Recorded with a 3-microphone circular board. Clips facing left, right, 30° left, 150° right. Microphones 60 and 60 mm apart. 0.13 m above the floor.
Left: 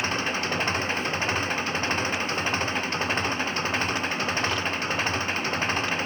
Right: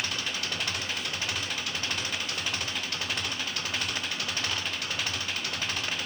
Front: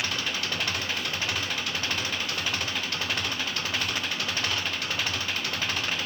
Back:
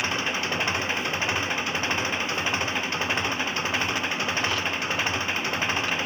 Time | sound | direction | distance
0.0 | an engine running | 145° left | ?